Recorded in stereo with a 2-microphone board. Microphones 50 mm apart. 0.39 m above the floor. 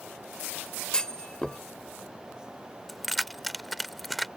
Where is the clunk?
15° left (ahead or behind).